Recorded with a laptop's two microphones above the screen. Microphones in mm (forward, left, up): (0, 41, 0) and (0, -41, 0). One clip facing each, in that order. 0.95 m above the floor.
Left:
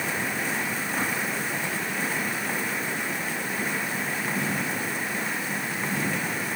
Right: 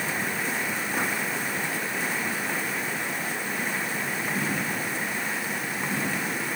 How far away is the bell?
I don't hear a bell.